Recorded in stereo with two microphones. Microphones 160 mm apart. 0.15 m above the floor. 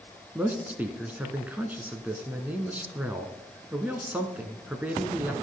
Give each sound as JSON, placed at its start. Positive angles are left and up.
{"t": 0.3, "sound": "a man speaking", "side_deg": -10, "distance_m": 1.4}